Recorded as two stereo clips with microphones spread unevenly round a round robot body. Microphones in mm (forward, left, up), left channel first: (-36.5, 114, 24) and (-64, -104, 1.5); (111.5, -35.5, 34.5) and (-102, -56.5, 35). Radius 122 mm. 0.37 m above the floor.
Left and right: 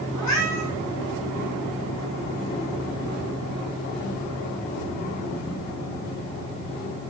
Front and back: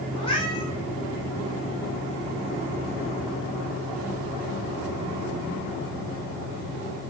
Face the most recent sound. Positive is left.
turn(degrees=75)